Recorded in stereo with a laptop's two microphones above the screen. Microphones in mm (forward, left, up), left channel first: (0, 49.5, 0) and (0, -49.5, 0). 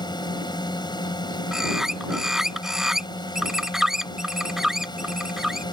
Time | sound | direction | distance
0.0 | a drone | 45° left (ahead or behind) | ?
1.5 | a bird | 5° right (ahead or behind) | ?